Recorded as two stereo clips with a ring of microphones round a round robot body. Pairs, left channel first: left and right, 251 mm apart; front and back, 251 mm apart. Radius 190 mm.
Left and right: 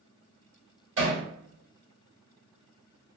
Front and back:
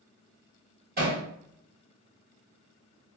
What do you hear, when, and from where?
1.0 s hammering: 125° right, 1.6 m